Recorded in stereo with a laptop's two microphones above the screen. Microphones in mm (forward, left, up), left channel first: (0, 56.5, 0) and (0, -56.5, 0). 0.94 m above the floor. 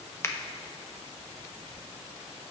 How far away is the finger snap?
About 0.7 m.